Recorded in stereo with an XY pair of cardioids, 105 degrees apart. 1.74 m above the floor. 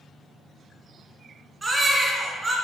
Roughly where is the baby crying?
Ahead.